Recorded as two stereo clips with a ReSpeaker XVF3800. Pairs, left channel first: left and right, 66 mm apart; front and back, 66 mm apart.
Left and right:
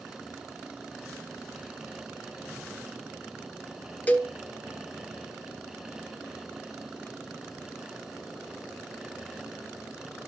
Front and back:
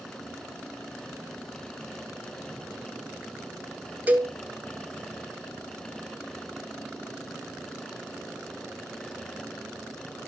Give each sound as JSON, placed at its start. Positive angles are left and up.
{"t": 4.1, "sound": "a cowbell", "azimuth_deg": 140, "distance_m": 1.3}